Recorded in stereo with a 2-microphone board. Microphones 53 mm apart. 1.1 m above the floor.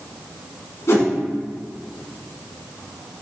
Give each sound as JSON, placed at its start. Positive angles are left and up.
{"t": 0.9, "sound": "a whoosh", "side_deg": 60, "distance_m": 3.0}